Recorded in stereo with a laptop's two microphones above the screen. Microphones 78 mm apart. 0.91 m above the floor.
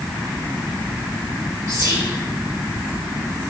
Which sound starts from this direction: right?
Whispering, at 1.7 s.